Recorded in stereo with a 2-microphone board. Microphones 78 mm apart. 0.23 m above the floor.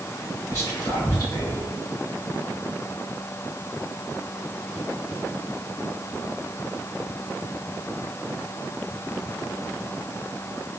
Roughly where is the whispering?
Left.